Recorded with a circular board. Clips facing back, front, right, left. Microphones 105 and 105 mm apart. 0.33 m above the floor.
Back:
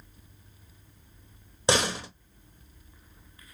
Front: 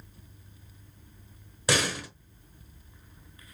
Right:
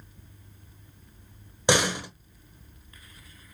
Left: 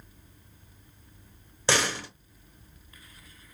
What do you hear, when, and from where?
1.7 s a door slam: 150° right, 1.0 m